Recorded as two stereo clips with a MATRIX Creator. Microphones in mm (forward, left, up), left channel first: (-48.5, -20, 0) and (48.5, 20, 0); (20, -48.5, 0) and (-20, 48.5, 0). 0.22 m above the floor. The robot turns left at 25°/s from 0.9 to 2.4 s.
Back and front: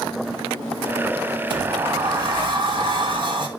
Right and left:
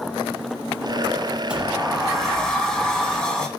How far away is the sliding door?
About 1.2 m.